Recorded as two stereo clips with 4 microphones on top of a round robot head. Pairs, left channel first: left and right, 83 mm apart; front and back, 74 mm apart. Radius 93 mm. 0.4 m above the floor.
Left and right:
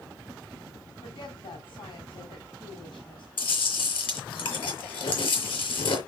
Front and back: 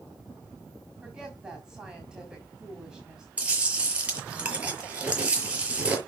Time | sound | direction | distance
1.0 | a woman speaking | 100° left | 4 m
3.4 | chewing | 105° left | 6 m